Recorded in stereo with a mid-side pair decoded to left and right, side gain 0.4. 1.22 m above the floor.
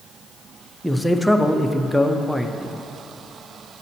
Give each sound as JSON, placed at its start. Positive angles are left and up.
{"t": 0.8, "sound": "a man speaking", "azimuth_deg": 0, "distance_m": 0.6}